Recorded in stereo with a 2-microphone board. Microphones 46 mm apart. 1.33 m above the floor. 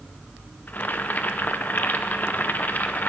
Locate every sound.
0.7 s boiling: 45° left (ahead or behind), 0.7 m